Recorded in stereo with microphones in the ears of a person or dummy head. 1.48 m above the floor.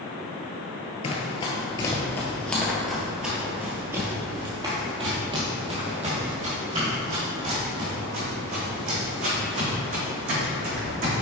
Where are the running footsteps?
30° left (ahead or behind), 1.7 m; by 11.2 s 50° right (ahead or behind), 5 m.